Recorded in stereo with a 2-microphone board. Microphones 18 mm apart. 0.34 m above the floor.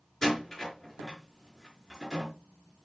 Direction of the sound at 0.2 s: 25° left (ahead or behind).